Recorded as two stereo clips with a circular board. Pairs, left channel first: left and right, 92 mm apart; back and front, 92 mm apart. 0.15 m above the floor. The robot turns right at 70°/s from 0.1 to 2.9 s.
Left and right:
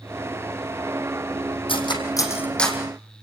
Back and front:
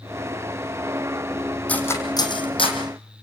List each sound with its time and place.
1.7 s cutlery clinking: 105° left, 4.5 m; by 2.8 s 175° right, 4.5 m